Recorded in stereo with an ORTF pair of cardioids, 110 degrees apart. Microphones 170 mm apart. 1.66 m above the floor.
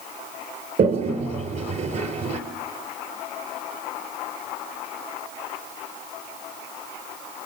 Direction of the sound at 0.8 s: 50° right.